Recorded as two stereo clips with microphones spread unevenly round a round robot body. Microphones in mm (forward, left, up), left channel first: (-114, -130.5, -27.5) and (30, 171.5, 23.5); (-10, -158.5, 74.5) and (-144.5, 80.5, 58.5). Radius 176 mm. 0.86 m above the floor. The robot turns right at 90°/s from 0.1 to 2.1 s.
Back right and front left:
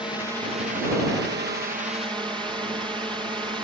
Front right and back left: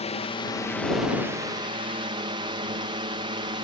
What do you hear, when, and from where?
0.0 s a drone: 40° right; by 3.6 s 140° left